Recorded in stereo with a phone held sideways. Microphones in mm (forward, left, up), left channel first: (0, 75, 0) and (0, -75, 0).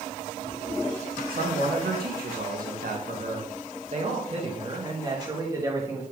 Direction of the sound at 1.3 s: 80° right.